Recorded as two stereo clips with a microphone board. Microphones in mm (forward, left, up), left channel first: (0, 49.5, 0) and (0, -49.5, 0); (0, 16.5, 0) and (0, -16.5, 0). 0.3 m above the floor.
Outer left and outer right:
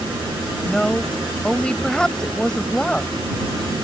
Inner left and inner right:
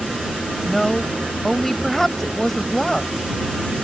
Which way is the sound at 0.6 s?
10° left (ahead or behind).